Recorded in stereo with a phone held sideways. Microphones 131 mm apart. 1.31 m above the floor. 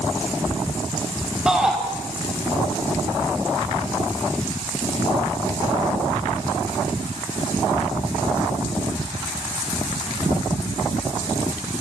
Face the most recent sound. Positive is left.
turn(degrees=-5)  # may be behind; listen again after turning